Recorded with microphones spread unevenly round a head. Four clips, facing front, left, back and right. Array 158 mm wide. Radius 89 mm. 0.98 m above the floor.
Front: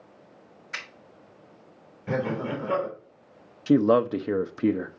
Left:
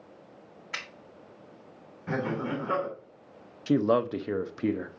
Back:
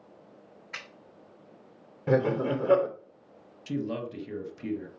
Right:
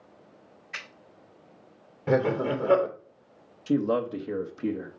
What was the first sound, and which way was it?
A finger snap, 105° left.